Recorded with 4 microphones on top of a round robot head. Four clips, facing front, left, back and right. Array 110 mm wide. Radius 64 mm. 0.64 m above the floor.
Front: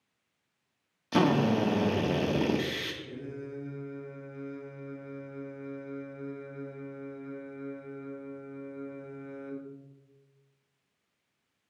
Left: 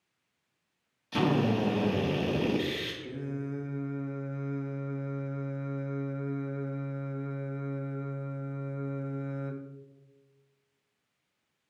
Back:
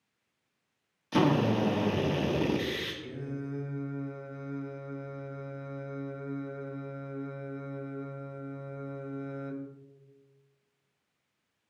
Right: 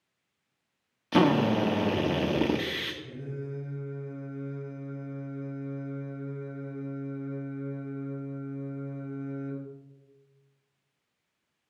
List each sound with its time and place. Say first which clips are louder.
1.1 s a drill: right 4 dB, front 1 dB; 65° right, 1.3 m
3.0 s singing: left 2 dB, back 2 dB; 125° left, 1.0 m